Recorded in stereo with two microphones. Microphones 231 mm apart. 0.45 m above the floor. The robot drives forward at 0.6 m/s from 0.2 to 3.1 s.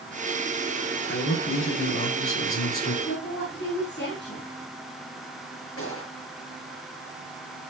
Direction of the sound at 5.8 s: 75° left (ahead or behind).